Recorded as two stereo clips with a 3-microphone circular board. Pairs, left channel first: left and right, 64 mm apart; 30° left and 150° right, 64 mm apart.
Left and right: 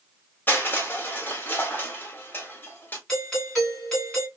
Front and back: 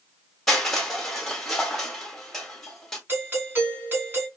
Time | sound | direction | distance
0.5 | crushing | 110° left | 1.3 m
3.1 | a doorbell | 170° left | 2 m